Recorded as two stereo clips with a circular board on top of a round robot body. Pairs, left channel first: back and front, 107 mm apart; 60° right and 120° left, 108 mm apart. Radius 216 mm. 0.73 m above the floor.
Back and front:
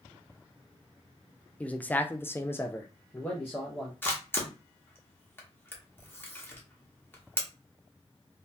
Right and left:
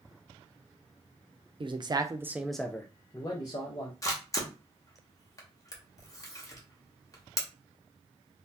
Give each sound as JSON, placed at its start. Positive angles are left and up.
{"t": 1.6, "sound": "a man speaking", "azimuth_deg": 105, "distance_m": 0.8}
{"t": 4.0, "sound": "a camera shutter", "azimuth_deg": -115, "distance_m": 1.3}